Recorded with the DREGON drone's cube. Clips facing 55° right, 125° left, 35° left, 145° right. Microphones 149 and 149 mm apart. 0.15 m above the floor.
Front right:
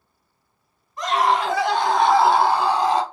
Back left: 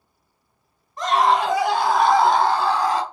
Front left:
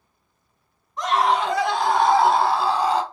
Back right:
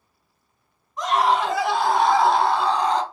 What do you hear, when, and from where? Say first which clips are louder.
1.0 s a scream: back left 2 dB, even; 140° left, 1.2 m; by 3.0 s 45° right, 1.1 m